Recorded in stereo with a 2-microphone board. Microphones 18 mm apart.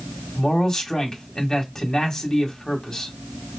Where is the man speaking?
35° left (ahead or behind), 1.6 m.